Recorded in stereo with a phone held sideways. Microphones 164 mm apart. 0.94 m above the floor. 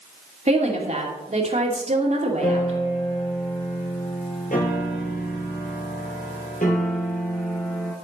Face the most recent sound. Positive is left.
turn(degrees=50)  # may be behind; listen again after turning